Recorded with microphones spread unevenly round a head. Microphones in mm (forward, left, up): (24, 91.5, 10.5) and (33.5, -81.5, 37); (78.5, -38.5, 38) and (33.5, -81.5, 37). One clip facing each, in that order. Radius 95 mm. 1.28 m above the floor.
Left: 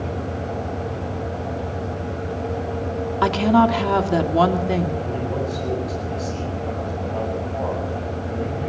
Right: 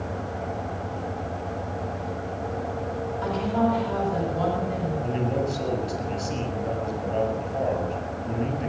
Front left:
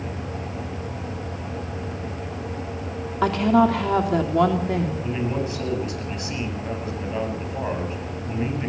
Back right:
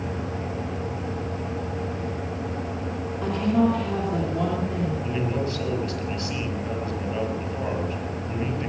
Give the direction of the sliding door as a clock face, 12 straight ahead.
No sliding door in this recording.